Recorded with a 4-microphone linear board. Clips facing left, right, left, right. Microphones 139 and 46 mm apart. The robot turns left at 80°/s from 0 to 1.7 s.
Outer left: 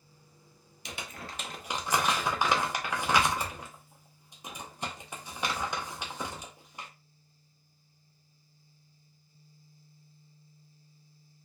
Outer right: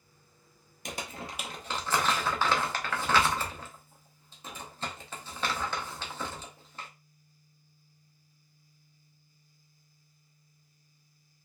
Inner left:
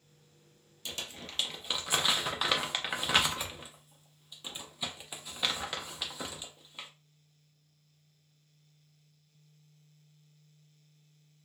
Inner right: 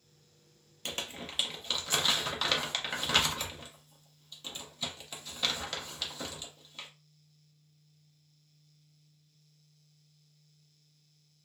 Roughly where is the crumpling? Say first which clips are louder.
Outer right 3 dB, inner right 3 dB; right.